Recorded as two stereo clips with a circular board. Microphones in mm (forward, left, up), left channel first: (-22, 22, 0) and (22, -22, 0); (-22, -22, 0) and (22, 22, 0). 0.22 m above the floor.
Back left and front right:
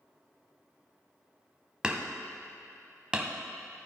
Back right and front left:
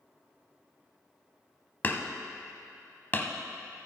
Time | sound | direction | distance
1.8 | hammering | 110° right | 0.7 m